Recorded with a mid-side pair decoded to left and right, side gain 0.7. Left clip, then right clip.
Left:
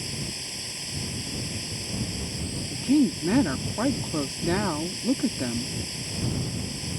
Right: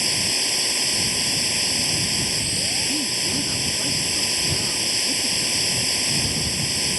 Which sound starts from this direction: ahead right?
A machine running, at 0.0 s.